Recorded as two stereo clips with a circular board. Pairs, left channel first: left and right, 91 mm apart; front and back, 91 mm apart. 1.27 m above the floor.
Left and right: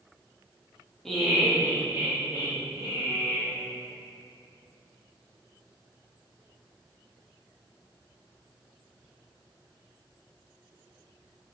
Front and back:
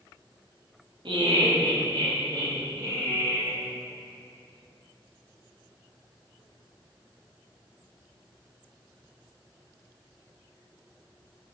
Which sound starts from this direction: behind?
Laughter, at 1.1 s.